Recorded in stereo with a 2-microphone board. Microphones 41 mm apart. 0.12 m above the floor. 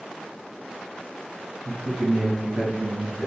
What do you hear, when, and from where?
1.6 s a man speaking: 25° right (ahead or behind), 1.2 m